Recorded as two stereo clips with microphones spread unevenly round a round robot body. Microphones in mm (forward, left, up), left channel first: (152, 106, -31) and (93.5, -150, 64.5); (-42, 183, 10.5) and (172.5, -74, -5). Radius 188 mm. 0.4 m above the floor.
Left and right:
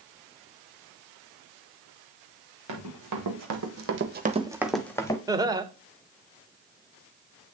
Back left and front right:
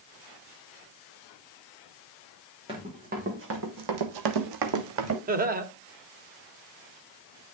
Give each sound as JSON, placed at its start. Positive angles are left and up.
{"t": 2.7, "sound": "running footsteps", "azimuth_deg": -130, "distance_m": 2.0}
{"t": 5.3, "sound": "laughter", "azimuth_deg": -5, "distance_m": 1.0}